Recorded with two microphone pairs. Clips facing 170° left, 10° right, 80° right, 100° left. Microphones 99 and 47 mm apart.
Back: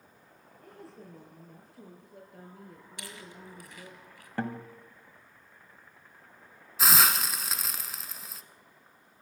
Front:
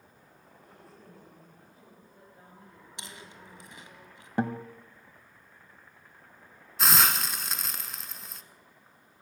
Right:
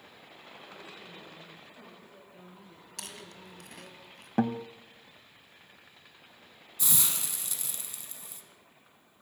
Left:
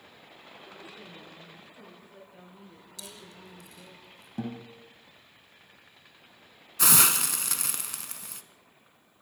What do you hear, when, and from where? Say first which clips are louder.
0.6 s a woman speaking: back 6 dB, left 1 dB; 165° left, 7.5 m; by 4.0 s 170° right, 5.5 m
3.0 s chewing: back 1 dB, right 2 dB; 70° right, 1.8 m
4.4 s a guitar: front 4 dB, right 8 dB; 75° right, 1.2 m
6.8 s a hiss: even, left 10 dB; 85° left, 0.7 m